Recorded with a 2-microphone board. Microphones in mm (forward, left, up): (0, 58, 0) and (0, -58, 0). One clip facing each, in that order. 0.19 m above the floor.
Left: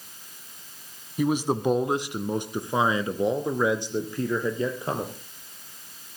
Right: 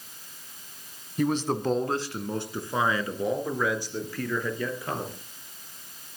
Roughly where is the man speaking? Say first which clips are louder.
Left 2 dB; centre.